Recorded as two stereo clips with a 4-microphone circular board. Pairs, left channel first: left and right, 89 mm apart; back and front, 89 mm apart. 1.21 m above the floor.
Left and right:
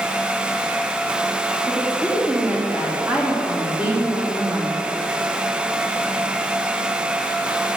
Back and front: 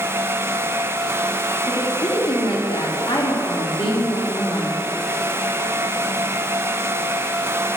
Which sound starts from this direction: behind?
A woman speaking, at 1.7 s.